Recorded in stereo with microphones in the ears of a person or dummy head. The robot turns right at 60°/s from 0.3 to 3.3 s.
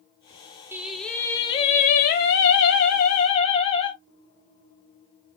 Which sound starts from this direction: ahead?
Singing, at 0.7 s.